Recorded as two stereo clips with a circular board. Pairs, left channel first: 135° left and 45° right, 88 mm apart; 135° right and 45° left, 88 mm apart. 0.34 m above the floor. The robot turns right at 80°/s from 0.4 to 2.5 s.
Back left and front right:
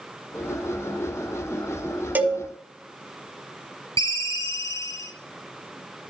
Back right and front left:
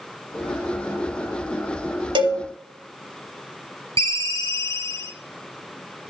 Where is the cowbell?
25° left, 1.0 m; by 2.4 s 45° left, 1.0 m.